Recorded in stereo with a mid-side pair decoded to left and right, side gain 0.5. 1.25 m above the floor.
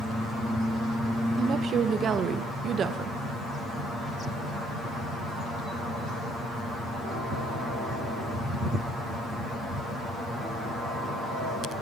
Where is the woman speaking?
50° right, 0.9 m.